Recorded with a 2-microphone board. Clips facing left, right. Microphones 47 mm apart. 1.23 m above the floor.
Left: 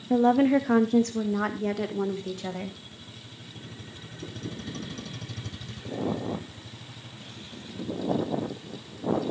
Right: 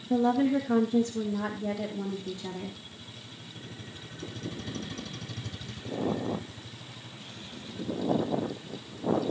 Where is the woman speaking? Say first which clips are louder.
Left 4 dB; 35° left (ahead or behind), 0.6 m; by 2.8 s 65° left (ahead or behind), 1.9 m.